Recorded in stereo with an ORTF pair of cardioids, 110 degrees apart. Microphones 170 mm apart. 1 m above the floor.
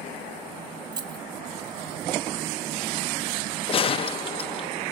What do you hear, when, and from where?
0.9 s keys jangling: 25° right, 1.1 m
3.7 s a gunshot: 35° left, 0.5 m